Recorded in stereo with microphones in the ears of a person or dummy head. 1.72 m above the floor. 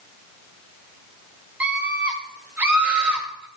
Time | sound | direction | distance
1.6 | a scream | 5° right (ahead or behind) | 7 m